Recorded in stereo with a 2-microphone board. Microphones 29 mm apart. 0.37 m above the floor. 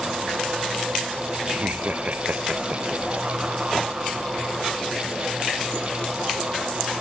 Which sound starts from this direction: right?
Laughter, at 1.5 s.